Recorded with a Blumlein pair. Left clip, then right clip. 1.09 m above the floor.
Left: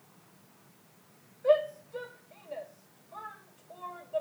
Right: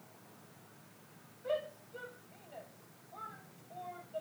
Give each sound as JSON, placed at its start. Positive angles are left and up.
{"t": 1.4, "sound": "a shout", "azimuth_deg": 50, "distance_m": 5.0}